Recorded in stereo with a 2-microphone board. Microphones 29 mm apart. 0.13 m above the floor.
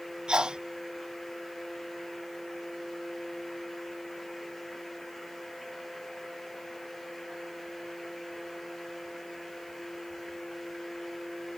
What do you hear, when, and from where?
0.3 s a sneeze: 30° right (ahead or behind)